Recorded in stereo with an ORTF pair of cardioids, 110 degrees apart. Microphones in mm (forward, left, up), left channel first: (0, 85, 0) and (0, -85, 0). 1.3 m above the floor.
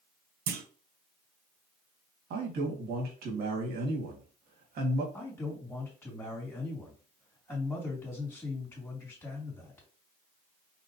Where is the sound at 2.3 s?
65° right, 1.9 m.